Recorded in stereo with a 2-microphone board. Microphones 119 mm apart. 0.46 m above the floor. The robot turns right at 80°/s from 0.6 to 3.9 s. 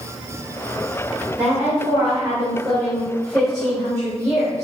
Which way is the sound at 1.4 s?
170° right.